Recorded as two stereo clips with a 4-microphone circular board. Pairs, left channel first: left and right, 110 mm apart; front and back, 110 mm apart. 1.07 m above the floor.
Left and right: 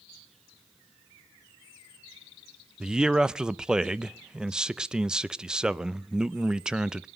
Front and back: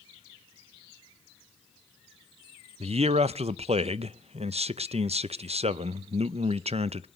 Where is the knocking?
I don't hear knocking.